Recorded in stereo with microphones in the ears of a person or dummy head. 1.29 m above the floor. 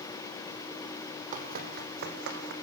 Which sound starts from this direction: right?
Running footsteps, at 1.3 s.